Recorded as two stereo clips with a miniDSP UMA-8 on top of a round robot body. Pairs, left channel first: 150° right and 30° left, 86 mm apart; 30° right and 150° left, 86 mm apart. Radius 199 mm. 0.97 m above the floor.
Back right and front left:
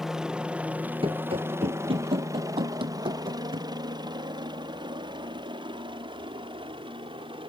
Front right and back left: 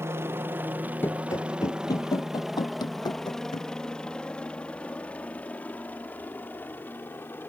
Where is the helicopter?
110° left; by 7.5 s 35° left.